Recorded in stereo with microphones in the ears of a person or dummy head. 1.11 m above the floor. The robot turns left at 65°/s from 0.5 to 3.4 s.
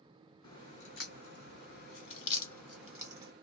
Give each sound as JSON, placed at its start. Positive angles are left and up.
{"t": 0.4, "sound": "a crack", "side_deg": 25, "distance_m": 1.7}